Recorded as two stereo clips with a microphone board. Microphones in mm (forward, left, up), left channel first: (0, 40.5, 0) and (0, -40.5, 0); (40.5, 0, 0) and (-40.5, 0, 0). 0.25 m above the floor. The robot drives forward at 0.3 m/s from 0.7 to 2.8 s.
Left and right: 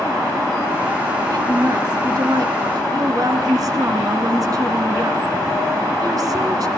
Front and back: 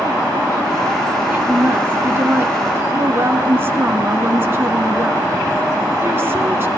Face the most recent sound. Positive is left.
turn(degrees=-125)